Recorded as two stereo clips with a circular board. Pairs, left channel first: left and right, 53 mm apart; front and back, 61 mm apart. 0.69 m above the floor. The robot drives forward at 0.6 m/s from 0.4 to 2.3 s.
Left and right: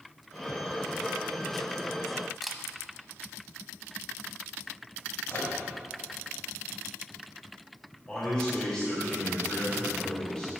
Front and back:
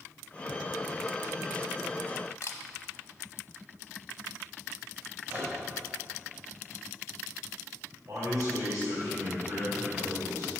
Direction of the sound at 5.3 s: 120° left.